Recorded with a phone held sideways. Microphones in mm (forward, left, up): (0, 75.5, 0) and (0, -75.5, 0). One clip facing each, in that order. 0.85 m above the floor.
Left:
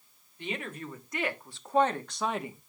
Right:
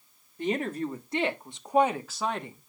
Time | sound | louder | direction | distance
0.4 | a woman speaking | right 9 dB | 40° right (ahead or behind) | 2.0 m